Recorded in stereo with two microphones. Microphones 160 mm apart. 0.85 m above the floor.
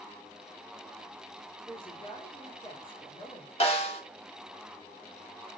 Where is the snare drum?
40° left (ahead or behind), 2.5 m.